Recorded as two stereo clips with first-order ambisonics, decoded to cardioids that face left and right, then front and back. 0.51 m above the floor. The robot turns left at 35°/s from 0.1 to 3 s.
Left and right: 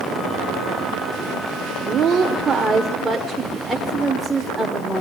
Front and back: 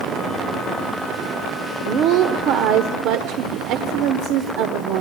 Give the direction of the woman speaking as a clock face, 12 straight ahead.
4 o'clock.